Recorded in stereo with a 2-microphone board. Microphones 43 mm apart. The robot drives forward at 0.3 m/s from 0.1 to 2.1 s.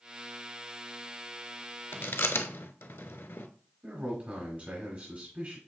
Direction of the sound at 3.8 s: 35° right (ahead or behind).